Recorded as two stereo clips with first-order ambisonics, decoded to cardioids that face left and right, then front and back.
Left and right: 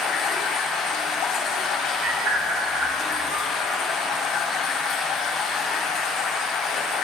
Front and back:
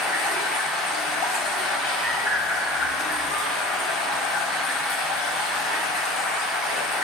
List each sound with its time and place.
0.0 s running water: 40° left, 4 m
2.0 s a bird: 55° right, 3.5 m